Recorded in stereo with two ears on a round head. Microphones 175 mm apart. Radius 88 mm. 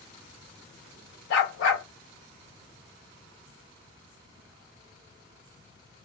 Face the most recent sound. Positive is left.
turn(degrees=60)  # may be behind; listen again after turning